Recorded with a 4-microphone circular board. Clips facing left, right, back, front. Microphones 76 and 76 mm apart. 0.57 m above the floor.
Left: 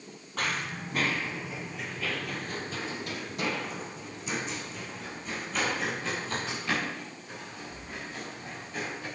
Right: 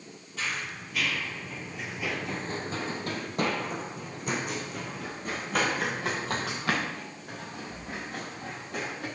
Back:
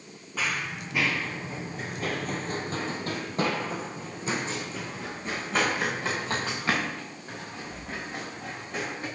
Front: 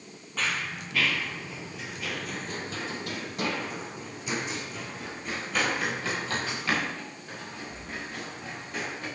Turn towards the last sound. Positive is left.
turn(degrees=-115)